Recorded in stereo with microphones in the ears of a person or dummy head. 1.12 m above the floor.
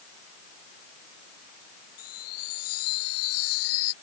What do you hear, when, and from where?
2.0 s a chime: 75° left (ahead or behind)